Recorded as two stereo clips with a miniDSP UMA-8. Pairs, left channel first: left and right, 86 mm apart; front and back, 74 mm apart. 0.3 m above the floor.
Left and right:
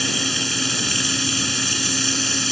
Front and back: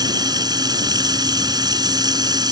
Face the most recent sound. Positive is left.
turn(degrees=180)